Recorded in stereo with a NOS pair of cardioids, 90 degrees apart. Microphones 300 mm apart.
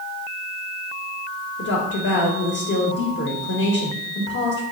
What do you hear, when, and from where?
1.6 s a woman speaking: 40° left, 1.2 m